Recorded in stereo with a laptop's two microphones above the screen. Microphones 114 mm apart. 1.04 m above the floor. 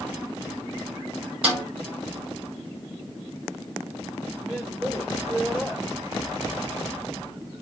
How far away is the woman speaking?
About 5.5 m.